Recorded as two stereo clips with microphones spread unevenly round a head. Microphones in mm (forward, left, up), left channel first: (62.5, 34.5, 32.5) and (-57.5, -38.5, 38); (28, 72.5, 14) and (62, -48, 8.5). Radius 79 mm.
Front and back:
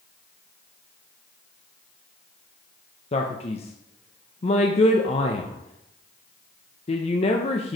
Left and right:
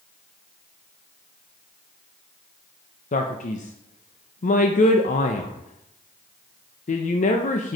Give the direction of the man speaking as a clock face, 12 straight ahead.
9 o'clock.